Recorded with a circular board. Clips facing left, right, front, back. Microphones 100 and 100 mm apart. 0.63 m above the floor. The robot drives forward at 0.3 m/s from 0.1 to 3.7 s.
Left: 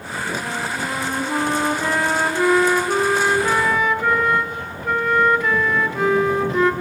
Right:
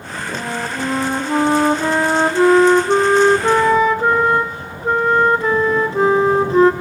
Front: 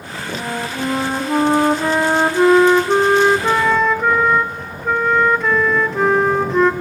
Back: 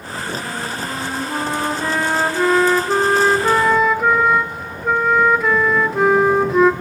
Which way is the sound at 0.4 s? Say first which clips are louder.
Right 2 dB, front 3 dB; 30° right.